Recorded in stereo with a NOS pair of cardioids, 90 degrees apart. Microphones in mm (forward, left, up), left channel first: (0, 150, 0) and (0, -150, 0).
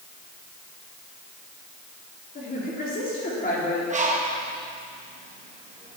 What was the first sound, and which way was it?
A woman speaking, 30° left.